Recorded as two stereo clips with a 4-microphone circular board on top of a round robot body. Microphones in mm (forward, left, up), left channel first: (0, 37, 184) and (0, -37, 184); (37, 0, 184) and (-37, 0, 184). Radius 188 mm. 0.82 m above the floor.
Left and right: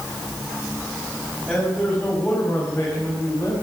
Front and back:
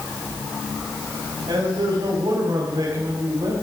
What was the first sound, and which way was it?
A man speaking, straight behind.